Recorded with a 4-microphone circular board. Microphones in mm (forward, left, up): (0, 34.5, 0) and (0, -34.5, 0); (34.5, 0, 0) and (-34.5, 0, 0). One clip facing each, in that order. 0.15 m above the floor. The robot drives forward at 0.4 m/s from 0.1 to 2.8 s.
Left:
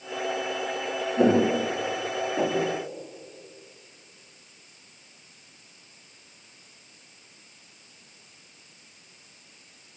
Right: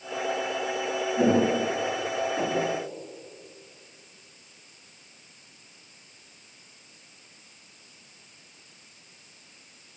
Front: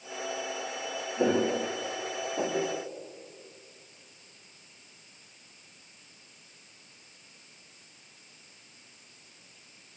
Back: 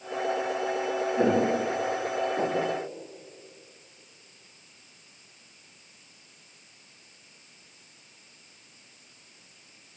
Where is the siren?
I don't hear a siren.